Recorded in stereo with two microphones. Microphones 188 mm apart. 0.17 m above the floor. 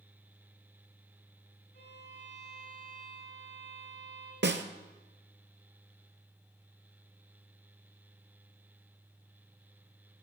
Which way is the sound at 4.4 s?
70° right (ahead or behind).